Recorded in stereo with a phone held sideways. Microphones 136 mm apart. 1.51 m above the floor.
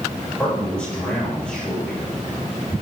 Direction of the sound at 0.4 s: 10° left (ahead or behind).